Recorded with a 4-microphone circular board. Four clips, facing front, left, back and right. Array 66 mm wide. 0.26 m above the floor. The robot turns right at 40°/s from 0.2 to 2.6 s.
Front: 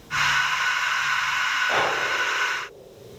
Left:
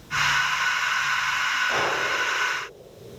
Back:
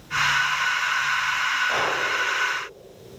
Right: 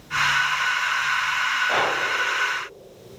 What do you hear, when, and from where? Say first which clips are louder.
1.7 s breathing: right 2 dB, front 1 dB; 55° right, 1.1 m; by 2.0 s 45° right, 1.1 m